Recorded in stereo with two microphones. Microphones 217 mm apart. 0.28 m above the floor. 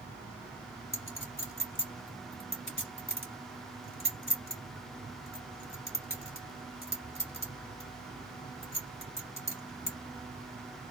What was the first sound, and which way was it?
A clink, 65° left (ahead or behind).